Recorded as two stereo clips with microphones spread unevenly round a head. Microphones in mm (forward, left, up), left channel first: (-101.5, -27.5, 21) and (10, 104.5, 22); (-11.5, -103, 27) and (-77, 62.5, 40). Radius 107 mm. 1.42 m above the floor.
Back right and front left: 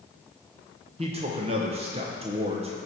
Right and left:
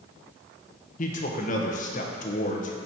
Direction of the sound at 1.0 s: 15° right.